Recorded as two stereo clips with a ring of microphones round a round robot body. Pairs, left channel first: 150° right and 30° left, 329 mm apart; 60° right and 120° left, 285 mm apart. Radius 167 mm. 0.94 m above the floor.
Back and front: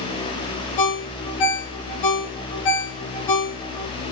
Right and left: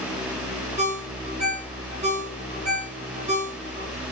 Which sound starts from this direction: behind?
A ringtone, at 0.8 s.